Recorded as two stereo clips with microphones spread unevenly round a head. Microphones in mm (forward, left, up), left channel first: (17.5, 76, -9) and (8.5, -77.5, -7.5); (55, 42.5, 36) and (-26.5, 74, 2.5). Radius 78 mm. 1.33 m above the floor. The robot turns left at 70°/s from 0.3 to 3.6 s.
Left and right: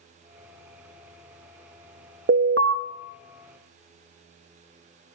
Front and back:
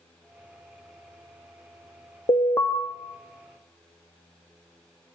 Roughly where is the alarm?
Right.